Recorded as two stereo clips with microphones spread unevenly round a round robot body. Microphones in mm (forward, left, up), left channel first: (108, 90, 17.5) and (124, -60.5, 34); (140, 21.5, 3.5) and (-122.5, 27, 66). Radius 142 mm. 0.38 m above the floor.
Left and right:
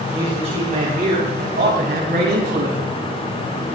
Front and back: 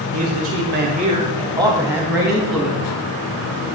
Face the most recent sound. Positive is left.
turn(degrees=-85)